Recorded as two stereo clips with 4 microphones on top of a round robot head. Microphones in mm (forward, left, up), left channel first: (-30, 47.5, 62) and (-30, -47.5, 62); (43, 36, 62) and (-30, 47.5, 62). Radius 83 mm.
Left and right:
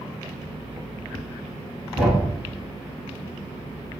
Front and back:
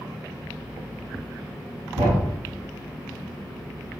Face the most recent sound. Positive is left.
turn(degrees=175)